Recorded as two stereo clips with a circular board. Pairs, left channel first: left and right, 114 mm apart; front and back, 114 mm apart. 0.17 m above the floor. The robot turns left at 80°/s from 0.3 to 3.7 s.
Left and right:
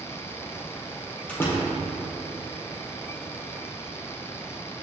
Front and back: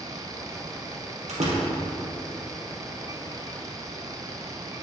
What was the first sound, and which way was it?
A door slam, 170° left.